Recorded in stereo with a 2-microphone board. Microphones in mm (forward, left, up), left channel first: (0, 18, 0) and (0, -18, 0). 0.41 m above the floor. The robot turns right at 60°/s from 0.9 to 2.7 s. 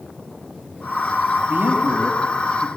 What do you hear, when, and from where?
1.5 s a man speaking: 75° right, 4 m; by 2.7 s 5° right, 4 m